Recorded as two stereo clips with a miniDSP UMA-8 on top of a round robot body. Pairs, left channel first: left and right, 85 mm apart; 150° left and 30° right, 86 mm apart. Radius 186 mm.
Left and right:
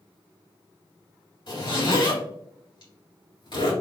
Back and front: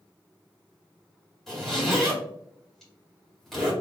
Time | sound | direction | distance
1.5 | a zipper | 65° left | 2.0 m